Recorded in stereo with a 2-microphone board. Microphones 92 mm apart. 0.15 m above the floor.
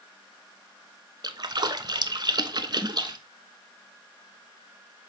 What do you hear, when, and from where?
1.2 s a splash: 50° right (ahead or behind), 0.6 m